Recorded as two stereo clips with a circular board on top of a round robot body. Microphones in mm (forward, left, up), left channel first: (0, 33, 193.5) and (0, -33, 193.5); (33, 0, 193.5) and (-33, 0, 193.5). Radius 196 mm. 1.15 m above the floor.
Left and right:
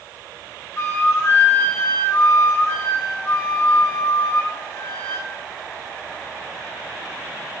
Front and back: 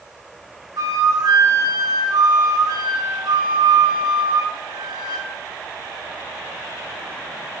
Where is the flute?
150° left, 2 m.